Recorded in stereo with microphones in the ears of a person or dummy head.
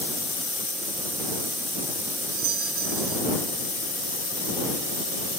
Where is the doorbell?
55° right (ahead or behind).